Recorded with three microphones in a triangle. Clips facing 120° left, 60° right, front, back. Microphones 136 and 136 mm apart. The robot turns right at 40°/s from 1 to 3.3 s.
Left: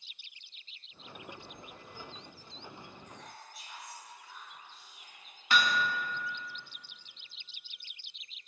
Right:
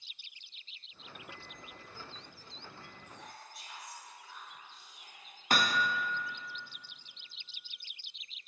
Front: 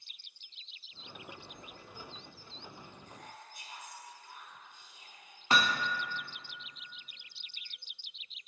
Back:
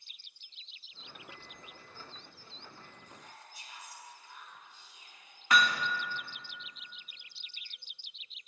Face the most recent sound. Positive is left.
turn(degrees=-50)